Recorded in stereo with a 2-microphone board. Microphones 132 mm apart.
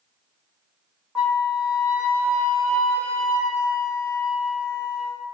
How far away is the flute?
About 1.0 m.